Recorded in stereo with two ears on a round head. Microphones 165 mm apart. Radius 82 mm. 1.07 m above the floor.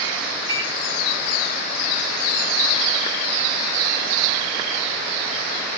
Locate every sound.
0.5 s a microwave: 20° right (ahead or behind), 5.5 m